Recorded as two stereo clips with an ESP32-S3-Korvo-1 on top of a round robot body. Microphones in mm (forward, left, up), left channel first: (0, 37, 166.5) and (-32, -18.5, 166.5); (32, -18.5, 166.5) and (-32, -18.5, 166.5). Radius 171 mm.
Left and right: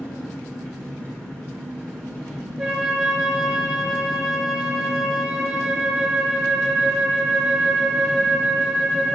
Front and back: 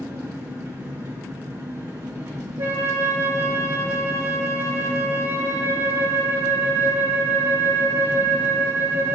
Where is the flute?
150° left, 2 m.